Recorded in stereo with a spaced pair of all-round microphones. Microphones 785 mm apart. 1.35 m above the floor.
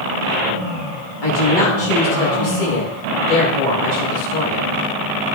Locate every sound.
1.2 s a woman speaking: 80° left, 2.5 m